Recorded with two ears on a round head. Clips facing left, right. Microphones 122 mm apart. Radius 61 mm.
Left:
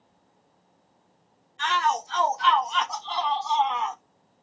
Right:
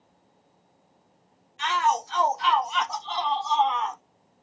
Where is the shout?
15° right (ahead or behind), 0.8 m; by 4.0 s 10° left (ahead or behind), 1.0 m.